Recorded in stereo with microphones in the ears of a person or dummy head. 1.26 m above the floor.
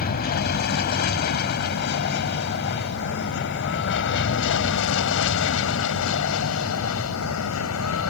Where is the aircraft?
50° left (ahead or behind); by 8.1 s 80° left.